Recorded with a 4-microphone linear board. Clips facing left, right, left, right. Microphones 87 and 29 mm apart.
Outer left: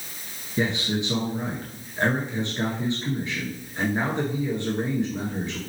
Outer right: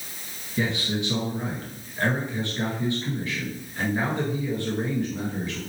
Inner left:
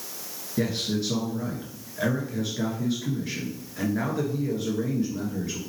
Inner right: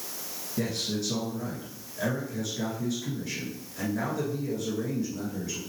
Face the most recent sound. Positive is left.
turn(degrees=20)  # may be behind; listen again after turning